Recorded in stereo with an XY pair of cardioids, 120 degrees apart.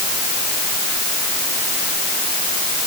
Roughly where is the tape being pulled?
No tape being pulled in this recording.